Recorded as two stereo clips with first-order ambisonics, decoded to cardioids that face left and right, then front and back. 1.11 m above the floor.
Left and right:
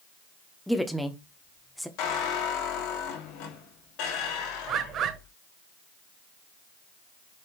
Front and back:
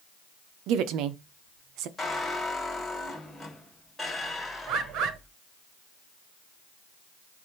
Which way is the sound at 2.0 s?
80° left.